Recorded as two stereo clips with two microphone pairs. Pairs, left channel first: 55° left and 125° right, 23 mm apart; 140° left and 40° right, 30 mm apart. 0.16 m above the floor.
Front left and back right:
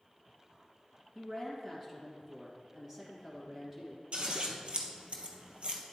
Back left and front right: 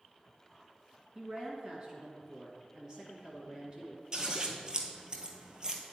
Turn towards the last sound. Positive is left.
turn(degrees=-100)